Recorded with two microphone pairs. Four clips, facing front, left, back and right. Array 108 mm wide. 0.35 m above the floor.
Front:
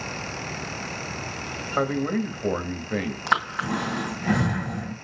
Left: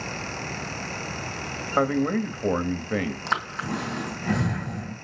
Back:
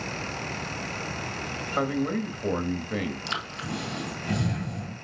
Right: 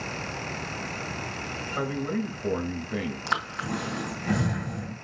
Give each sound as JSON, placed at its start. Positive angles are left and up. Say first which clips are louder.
{"t": 1.8, "sound": "a man speaking", "louder": "left 7 dB, front 2 dB", "azimuth_deg": 75, "distance_m": 1.2}
{"t": 3.3, "sound": "breathing", "louder": "left 2 dB, front 9 dB", "azimuth_deg": 10, "distance_m": 2.5}